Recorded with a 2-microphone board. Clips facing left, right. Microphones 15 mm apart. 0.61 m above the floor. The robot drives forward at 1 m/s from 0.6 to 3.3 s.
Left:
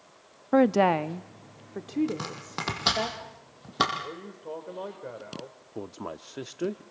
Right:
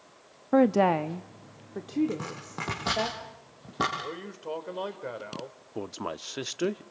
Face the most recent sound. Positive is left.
turn(degrees=-45)  # may be behind; listen again after turning